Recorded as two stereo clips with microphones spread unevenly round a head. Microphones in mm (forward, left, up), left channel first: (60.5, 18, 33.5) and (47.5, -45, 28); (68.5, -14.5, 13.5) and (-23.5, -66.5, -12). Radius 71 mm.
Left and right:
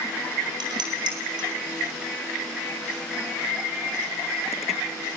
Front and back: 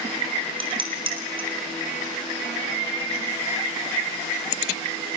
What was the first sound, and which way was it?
Dishes clattering, 110° right.